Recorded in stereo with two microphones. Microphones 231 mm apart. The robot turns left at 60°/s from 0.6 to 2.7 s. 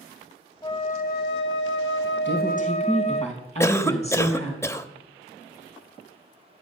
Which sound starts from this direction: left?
A woman speaking, at 2.2 s.